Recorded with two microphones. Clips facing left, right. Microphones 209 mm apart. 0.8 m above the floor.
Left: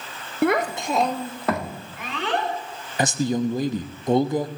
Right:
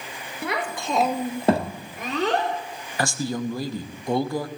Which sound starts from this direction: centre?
A man speaking, at 3.0 s.